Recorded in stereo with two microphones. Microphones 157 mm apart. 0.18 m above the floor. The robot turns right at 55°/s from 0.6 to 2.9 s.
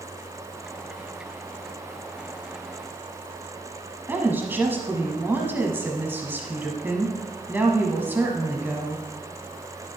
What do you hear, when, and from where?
4.1 s a woman speaking: 15° right (ahead or behind), 1.1 m